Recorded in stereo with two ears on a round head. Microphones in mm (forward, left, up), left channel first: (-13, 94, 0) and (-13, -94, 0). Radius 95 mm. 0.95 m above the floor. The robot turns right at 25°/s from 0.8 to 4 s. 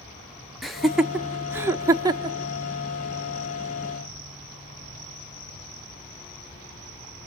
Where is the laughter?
Centre (ahead or behind), 0.9 m; by 2.4 s 20° right (ahead or behind), 0.9 m.